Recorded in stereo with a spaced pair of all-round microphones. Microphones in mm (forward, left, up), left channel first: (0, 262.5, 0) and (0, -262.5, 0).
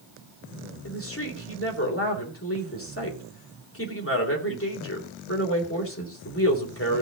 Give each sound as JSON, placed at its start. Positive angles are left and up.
{"t": 0.8, "sound": "a woman speaking", "side_deg": 25, "distance_m": 3.0}